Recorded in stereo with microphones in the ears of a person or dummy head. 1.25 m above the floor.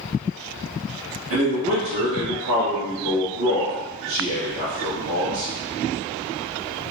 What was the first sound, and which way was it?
A man speaking, 60° right (ahead or behind).